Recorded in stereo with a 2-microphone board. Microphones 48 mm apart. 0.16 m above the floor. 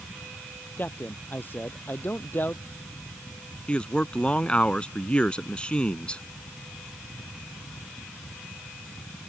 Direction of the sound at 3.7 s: 20° left (ahead or behind).